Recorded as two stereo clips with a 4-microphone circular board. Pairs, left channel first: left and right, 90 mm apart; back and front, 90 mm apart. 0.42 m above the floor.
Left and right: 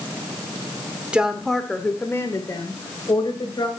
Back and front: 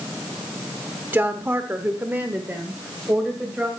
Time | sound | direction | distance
1.1 | a woman speaking | 30° right | 1.3 m